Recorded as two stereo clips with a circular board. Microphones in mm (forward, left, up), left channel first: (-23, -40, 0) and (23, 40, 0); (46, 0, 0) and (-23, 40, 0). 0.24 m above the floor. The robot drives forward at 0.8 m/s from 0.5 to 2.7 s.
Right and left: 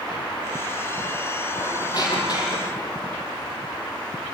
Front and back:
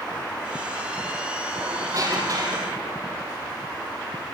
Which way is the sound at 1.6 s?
160° right.